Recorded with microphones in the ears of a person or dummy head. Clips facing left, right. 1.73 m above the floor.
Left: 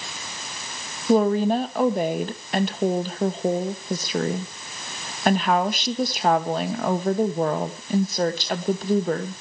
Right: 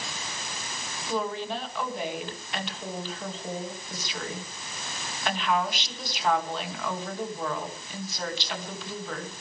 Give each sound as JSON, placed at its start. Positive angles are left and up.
{"t": 1.1, "sound": "a woman speaking", "side_deg": 45, "distance_m": 2.0}